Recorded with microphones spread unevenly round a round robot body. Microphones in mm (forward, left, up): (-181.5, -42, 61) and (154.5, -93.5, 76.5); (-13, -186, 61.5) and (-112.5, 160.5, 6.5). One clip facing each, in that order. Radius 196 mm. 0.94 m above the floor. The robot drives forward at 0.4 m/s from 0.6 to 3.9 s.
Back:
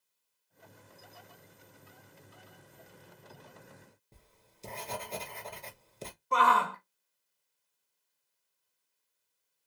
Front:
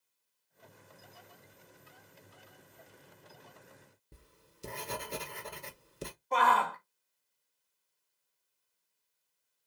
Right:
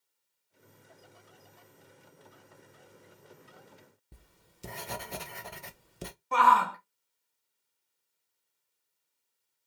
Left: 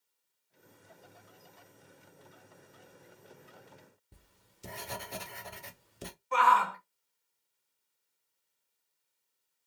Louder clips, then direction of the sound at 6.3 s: Back 1 dB, right 2 dB; 115° right.